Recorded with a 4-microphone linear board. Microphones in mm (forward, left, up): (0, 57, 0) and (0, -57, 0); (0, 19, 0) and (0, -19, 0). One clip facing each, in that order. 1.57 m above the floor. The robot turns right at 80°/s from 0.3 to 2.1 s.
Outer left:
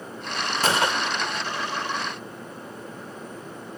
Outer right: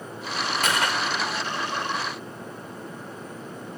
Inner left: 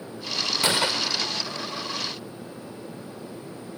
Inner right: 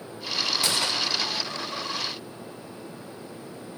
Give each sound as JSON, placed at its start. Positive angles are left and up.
{"t": 0.6, "sound": "a gunshot", "azimuth_deg": 110}